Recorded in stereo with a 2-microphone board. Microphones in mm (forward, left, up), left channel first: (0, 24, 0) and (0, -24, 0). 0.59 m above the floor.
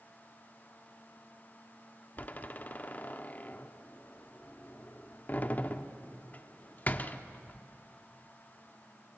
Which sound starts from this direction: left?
A door slam, at 2.2 s.